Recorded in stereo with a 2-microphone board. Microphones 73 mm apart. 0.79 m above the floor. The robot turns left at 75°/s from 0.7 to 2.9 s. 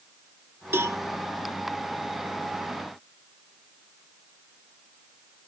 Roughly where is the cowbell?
Right.